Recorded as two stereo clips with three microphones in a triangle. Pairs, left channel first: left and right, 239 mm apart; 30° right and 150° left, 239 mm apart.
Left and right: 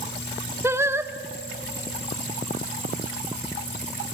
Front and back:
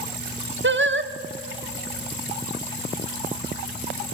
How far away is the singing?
About 1.1 m.